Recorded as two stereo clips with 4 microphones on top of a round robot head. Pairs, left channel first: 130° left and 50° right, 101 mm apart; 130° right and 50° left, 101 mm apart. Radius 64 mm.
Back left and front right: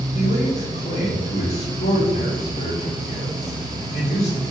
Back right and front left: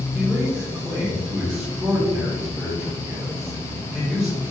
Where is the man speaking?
115° left, 2.5 m.